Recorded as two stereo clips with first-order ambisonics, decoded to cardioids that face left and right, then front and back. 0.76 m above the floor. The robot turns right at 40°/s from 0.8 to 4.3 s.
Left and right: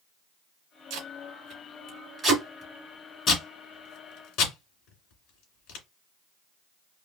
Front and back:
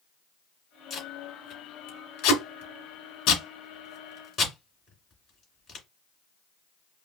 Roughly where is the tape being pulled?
Ahead right.